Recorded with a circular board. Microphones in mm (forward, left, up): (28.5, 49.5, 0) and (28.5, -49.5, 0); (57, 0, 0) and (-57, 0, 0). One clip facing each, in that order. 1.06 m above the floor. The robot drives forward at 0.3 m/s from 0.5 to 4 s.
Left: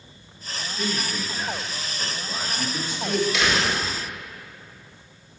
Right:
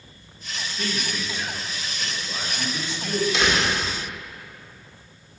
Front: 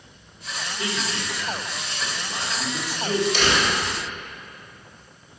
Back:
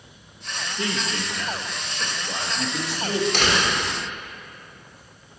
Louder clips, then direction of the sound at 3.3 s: Right 1 dB, even; 150° right.